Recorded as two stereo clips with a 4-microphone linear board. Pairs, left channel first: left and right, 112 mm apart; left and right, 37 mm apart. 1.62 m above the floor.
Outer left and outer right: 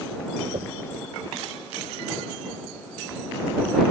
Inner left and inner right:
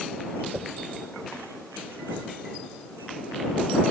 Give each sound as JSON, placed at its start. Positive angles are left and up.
{"t": 0.5, "sound": "knocking", "side_deg": -80}